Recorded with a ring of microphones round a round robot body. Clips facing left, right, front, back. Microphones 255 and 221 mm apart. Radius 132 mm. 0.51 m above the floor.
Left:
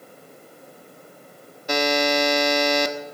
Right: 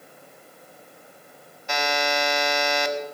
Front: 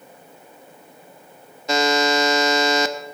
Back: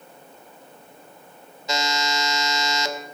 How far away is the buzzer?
About 0.7 m.